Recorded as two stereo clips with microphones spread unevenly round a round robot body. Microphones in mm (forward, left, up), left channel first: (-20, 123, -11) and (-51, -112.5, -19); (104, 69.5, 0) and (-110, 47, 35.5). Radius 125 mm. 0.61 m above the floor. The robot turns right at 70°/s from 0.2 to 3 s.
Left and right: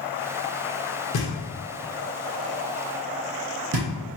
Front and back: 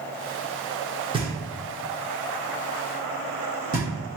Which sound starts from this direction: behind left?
Knocking, at 1.1 s.